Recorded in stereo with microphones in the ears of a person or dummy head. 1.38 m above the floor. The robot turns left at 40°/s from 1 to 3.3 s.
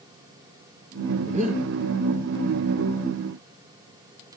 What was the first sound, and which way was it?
Breathing, 30° right (ahead or behind).